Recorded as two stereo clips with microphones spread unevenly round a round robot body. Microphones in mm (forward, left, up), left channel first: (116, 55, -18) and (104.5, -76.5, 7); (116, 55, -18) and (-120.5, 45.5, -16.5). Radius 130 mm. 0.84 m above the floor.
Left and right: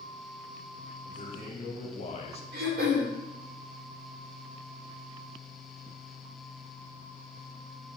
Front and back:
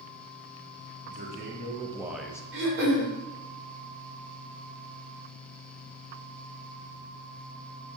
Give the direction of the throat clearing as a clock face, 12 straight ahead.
4 o'clock.